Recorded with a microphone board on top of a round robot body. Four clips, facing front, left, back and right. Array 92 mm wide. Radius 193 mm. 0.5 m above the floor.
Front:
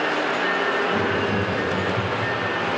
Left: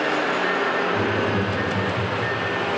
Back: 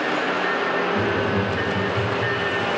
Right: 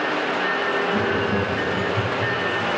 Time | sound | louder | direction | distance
0.9 | laughter | even, even | 35° right | 5 m